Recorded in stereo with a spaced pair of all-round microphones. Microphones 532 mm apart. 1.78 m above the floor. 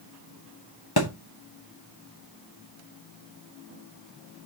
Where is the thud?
45° left (ahead or behind), 1.5 m.